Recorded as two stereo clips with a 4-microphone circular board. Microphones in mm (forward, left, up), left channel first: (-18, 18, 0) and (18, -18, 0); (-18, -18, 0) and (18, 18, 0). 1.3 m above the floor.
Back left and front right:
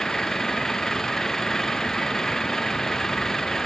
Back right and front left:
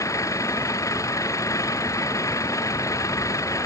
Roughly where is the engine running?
Behind right.